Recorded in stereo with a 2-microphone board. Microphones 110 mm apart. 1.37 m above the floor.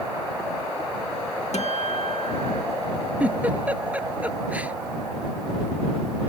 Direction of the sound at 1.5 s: 85° left.